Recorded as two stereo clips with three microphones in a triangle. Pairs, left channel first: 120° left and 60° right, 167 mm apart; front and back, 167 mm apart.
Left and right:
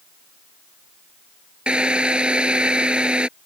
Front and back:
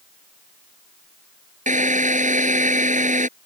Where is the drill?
145° right.